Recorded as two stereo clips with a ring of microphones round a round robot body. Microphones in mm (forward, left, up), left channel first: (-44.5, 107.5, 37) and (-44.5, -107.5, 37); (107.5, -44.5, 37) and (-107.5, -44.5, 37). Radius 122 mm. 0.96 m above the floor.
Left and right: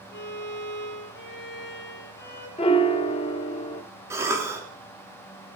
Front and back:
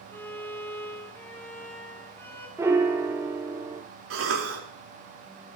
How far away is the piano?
About 0.5 m.